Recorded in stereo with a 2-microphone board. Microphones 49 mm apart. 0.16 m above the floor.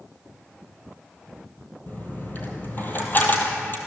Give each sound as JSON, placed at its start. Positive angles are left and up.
{"t": 1.9, "sound": "a dropped coin", "side_deg": 40, "distance_m": 1.9}